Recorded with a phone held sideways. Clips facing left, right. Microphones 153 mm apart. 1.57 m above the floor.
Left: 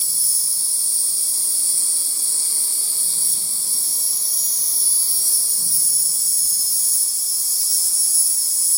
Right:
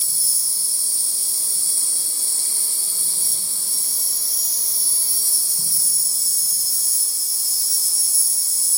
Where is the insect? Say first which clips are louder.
Right 1 dB; 65° right (ahead or behind), 0.8 m.